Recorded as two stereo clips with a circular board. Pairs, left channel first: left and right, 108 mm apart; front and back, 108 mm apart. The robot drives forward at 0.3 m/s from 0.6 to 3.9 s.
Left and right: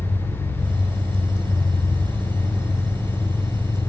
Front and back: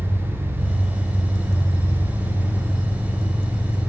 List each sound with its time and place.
0.0 s an engine running: 80° left, 5 m; by 3.9 s 90° left, 5 m